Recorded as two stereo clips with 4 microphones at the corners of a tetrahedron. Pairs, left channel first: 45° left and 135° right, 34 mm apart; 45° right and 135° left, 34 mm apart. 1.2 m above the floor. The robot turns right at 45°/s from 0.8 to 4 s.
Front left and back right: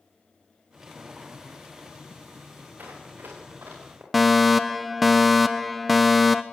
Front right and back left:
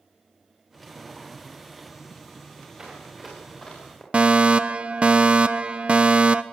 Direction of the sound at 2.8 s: 160° right.